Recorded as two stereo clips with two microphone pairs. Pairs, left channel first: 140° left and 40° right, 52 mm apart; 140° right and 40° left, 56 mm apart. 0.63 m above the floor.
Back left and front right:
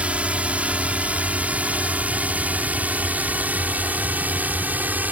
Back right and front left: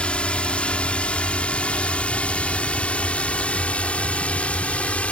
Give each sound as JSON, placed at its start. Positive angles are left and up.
{"t": 0.0, "sound": "a drone", "azimuth_deg": -85}